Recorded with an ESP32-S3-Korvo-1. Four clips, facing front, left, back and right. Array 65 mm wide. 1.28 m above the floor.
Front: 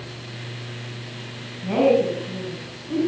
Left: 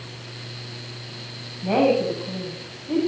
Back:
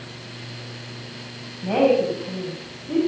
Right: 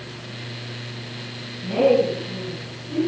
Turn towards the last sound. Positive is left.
turn(degrees=110)